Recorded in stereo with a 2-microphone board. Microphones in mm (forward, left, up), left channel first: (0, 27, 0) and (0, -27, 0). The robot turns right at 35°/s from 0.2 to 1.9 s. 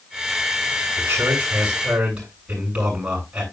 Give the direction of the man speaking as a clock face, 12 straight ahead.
2 o'clock.